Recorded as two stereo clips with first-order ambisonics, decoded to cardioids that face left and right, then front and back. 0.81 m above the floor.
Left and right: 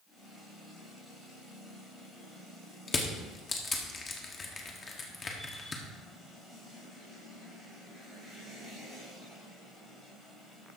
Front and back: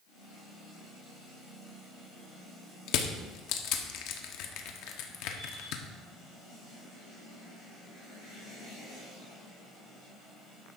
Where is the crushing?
20° left, 1.3 m.